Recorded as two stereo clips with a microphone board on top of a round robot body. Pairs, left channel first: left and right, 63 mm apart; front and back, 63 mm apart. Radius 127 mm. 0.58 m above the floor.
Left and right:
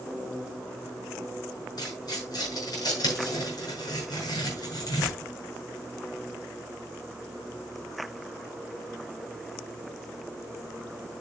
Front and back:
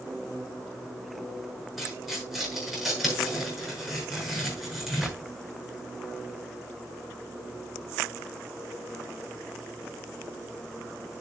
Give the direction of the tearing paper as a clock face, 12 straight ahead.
9 o'clock.